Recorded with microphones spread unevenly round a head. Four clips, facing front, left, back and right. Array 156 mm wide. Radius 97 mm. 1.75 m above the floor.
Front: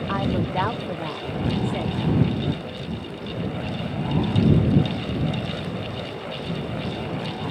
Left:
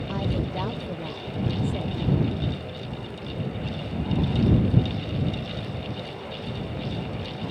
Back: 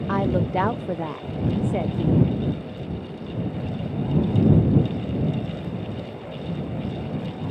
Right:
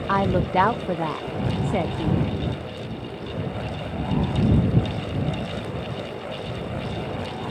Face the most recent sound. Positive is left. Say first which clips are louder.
# right 9 dB, back 3 dB
turn(degrees=-135)